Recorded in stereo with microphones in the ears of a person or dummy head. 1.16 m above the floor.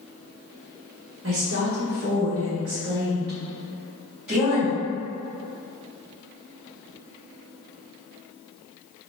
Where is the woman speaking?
70° right (ahead or behind), 1.3 m; by 4.8 s centre (ahead or behind), 2.5 m.